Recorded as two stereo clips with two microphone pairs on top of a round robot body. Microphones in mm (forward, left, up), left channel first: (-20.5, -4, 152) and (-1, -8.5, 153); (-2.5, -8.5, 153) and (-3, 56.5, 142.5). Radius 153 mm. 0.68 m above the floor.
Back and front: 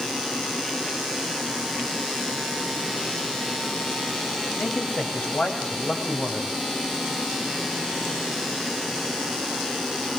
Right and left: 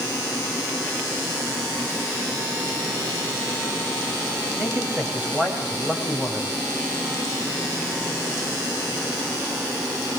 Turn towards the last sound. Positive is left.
turn(degrees=165)